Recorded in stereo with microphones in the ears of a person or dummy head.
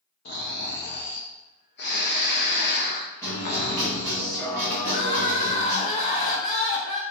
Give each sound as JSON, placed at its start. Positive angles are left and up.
{"t": 0.2, "sound": "snoring", "side_deg": 50, "distance_m": 0.5}
{"t": 3.2, "sound": "a guitar", "side_deg": 15, "distance_m": 1.1}
{"t": 4.8, "sound": "crying", "side_deg": 35, "distance_m": 0.6}